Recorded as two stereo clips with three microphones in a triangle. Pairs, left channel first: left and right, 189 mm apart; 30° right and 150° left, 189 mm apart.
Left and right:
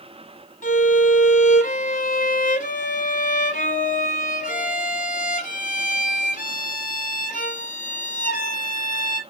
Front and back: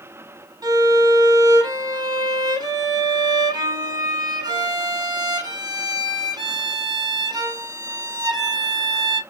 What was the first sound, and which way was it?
A violin, 90° left.